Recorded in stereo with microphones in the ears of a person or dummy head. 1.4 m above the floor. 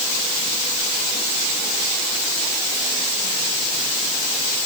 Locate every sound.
Only background noise.